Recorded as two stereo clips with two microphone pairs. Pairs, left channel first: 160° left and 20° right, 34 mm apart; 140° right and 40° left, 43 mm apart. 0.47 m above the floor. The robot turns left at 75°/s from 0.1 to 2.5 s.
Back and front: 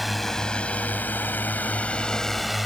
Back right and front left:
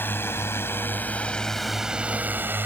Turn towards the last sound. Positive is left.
turn(degrees=70)